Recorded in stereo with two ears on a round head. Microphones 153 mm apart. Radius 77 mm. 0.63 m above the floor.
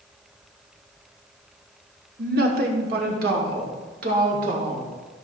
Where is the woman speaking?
60° right (ahead or behind), 1.5 m; by 4.9 s 55° right (ahead or behind), 2.5 m.